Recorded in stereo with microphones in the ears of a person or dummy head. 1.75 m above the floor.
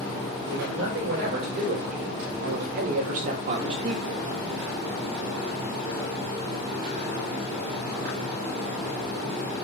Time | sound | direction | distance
0.4 | a man speaking | 60° right (ahead or behind) | 3 m